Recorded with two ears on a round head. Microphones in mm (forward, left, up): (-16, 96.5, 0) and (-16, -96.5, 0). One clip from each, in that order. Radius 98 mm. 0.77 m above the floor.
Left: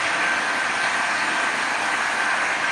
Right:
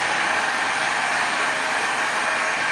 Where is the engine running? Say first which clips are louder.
Even; 30° right (ahead or behind), 1.5 m.